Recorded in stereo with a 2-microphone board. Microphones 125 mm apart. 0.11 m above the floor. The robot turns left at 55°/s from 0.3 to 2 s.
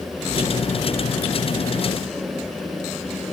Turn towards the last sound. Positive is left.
No sound to turn to.